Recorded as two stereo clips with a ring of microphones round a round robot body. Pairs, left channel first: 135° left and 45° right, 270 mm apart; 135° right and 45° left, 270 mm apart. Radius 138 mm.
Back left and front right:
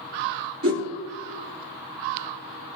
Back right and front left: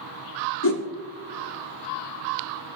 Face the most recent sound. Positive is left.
turn(degrees=-90)